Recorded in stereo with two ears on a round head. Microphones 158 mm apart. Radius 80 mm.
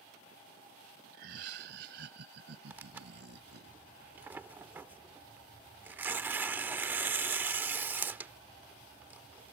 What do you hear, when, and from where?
1.1 s laughter: 65° right (ahead or behind); by 3.7 s 70° right (ahead or behind)
2.7 s tearing paper: 10° right (ahead or behind)